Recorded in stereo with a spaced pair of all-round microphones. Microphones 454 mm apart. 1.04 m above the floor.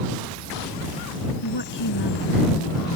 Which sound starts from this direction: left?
A woman speaking, at 1.4 s.